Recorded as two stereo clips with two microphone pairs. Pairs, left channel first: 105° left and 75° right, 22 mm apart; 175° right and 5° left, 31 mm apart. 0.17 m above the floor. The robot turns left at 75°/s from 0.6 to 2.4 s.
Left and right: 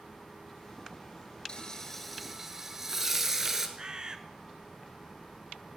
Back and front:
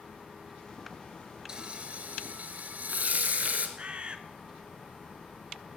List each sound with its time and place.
1.5 s frying: 65° left, 1.5 m; by 3.7 s 5° right, 1.5 m
3.8 s a bird: 30° right, 0.9 m